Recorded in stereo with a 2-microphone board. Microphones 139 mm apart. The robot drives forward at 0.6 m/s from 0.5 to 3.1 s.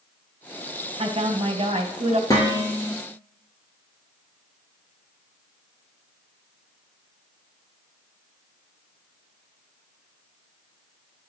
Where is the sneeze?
I don't hear a sneeze.